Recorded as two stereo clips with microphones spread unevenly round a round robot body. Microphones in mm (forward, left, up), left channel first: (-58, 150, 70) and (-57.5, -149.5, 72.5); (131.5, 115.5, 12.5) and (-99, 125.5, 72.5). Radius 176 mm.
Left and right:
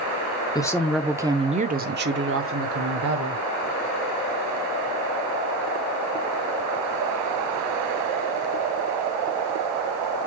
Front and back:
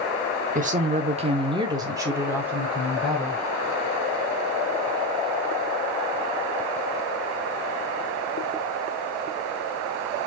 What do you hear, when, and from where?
0.6 s a woman speaking: 140° left, 1.0 m; by 3.4 s 80° right, 1.7 m